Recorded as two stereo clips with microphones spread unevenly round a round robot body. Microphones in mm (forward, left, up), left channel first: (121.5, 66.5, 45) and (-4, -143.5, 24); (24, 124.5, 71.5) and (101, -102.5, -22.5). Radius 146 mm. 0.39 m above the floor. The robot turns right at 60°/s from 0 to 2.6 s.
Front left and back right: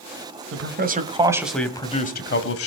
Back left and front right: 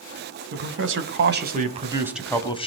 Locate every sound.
0.5 s a man speaking: 95° right, 2 m; by 2.7 s 35° left, 2 m